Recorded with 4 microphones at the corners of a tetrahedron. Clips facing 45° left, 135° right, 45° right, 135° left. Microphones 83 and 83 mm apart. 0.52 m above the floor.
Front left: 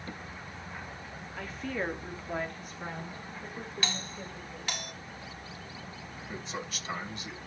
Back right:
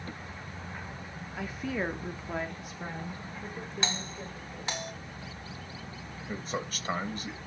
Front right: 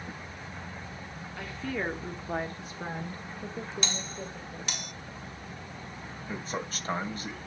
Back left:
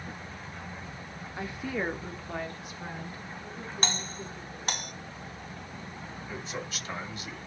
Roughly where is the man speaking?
Right.